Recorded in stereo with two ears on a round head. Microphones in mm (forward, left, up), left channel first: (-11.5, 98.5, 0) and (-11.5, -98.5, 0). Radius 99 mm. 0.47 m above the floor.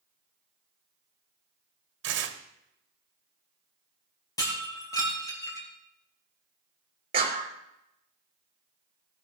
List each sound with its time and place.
2.0 s tearing paper: 60° right (ahead or behind), 1.6 m
4.4 s breaking glass: 15° left (ahead or behind), 5 m
7.1 s a clap: 30° right (ahead or behind), 5.5 m